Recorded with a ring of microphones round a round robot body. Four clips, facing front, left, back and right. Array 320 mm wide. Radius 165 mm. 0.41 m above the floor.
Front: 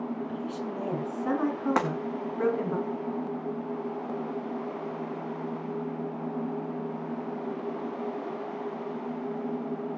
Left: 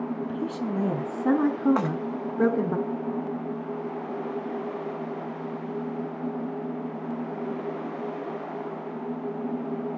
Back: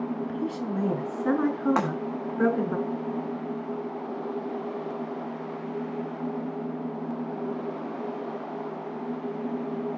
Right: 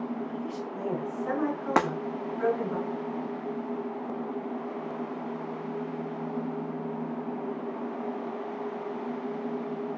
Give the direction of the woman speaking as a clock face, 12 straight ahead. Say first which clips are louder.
Left 5 dB, back 3 dB; 8 o'clock.